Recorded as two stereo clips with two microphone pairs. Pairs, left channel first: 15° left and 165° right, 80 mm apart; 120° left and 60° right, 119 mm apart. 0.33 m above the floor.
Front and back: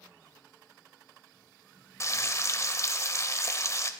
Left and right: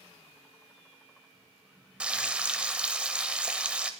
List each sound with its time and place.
2.0 s frying: 15° left, 0.9 m